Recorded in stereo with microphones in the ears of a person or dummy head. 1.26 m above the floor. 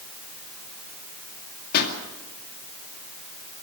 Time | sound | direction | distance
1.7 | a pop | 55° left (ahead or behind) | 2.5 m